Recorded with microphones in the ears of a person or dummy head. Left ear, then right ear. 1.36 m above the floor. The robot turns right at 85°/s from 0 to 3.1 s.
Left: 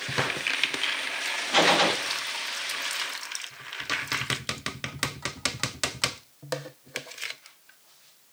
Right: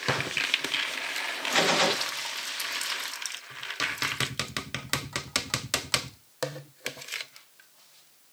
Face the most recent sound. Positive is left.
turn(degrees=-90)